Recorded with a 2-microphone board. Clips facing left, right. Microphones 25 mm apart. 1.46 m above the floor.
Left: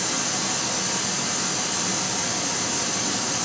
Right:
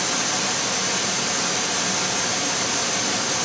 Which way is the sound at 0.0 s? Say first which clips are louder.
Right 3 dB; 50° right (ahead or behind).